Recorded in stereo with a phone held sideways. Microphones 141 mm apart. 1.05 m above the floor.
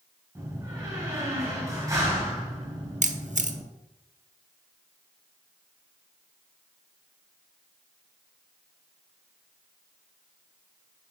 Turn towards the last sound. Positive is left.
turn(degrees=-60)  # may be behind; listen again after turning